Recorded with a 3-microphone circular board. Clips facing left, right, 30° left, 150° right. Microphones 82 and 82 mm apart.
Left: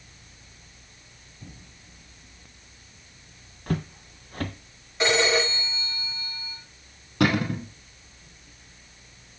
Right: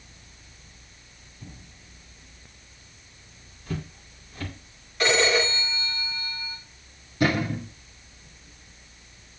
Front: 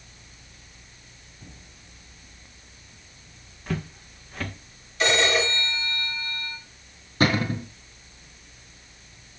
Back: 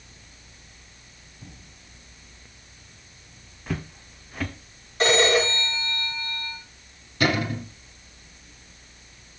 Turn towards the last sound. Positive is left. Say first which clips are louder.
# left 1 dB, front 1 dB
turn(degrees=85)